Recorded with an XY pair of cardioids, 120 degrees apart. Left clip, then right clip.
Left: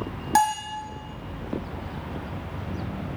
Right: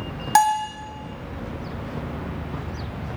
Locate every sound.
0.3 s a bell: 30° right, 0.9 m